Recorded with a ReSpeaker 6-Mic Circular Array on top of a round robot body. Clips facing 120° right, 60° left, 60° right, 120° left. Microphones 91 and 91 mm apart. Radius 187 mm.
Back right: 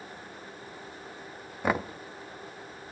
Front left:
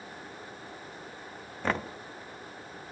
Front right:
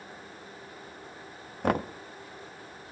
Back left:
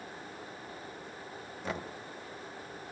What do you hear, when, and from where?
1.6 s knocking: 40° right, 1.2 m